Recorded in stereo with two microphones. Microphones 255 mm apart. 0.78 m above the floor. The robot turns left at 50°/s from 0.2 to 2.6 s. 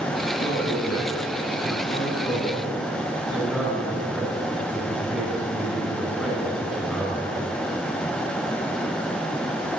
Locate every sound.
0.4 s a man speaking: 105° left, 9 m; by 7.5 s 5° right, 9 m